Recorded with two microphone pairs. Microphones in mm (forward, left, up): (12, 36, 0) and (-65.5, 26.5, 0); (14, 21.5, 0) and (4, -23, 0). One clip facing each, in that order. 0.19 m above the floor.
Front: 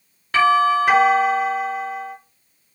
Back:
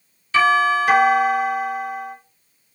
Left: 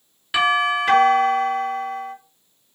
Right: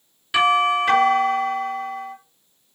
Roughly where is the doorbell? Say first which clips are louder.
Front 1 dB, right 1 dB; ahead.